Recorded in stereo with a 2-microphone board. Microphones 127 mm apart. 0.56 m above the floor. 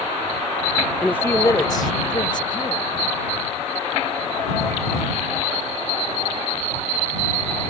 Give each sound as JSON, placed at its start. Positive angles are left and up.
{"t": 1.0, "sound": "a woman speaking", "side_deg": 5}